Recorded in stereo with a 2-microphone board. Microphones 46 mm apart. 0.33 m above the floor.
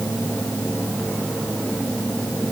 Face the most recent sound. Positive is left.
No sound to turn to.